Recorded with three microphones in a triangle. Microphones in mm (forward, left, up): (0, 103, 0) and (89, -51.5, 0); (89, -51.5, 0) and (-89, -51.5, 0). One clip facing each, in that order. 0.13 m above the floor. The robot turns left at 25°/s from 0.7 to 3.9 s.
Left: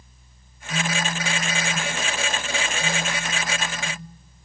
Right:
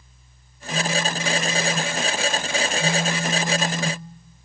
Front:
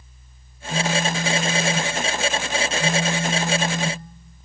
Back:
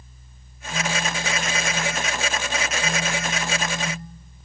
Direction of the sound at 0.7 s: 55° left.